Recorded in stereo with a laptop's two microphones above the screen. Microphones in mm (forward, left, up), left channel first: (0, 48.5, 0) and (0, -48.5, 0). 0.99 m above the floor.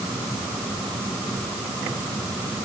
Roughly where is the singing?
I don't hear singing.